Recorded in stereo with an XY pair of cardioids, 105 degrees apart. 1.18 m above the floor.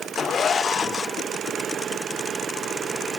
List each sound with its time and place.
Only background noise.